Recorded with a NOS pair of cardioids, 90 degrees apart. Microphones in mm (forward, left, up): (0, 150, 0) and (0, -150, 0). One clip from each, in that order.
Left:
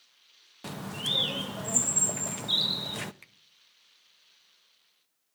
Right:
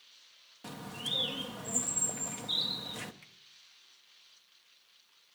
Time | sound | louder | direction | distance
0.6 | a bird | left 5 dB | 30° left | 0.7 m
3.2 | a finger snap | left 2 dB | 40° left | 0.9 m